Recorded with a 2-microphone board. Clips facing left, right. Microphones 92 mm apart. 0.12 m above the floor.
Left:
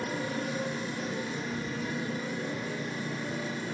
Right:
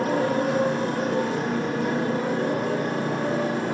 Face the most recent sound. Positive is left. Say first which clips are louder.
# right 11 dB
turn(degrees=-65)  # may be behind; listen again after turning